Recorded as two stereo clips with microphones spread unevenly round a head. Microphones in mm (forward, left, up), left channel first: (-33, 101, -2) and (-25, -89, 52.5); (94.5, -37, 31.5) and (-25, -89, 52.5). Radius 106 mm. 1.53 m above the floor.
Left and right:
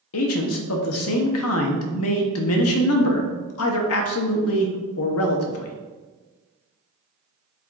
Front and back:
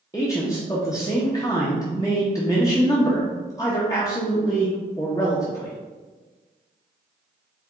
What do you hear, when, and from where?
0.1 s a man speaking: 100° left, 0.7 m